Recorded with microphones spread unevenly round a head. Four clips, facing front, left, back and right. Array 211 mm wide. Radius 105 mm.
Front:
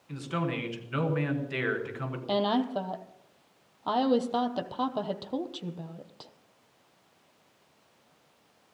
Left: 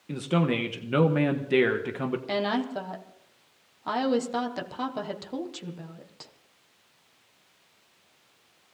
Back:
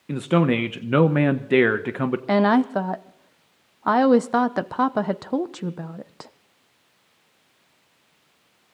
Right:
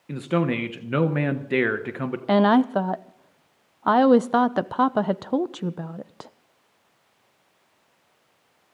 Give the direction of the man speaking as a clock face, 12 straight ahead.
6 o'clock.